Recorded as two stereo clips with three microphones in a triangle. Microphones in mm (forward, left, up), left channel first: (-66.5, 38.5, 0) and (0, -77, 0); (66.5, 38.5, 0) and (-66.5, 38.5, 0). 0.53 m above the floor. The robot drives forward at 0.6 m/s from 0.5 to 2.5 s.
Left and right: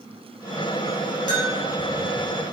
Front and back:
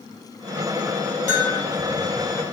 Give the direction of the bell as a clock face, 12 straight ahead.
7 o'clock.